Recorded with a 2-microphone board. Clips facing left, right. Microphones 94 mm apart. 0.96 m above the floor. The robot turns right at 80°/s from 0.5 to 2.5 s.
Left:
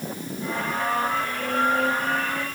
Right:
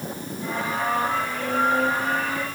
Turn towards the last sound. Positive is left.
No sound to turn to.